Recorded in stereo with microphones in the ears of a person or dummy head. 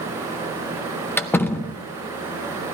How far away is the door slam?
About 0.7 m.